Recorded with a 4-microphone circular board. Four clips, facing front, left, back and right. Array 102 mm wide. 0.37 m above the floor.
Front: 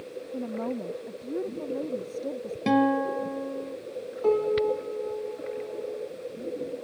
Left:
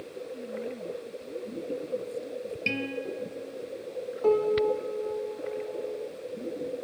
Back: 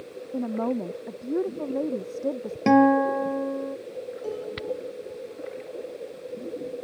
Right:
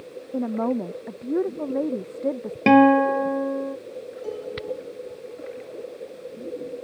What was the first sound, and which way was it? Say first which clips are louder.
A woman speaking: right 14 dB, back 5 dB; 110° right.